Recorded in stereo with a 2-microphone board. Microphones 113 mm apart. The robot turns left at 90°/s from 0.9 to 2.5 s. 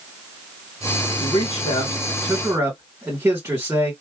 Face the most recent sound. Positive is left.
turn(degrees=-20)